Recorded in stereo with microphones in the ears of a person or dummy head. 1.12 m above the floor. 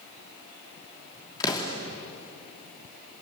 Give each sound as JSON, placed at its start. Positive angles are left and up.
{"t": 1.4, "sound": "an explosion", "side_deg": 25, "distance_m": 2.5}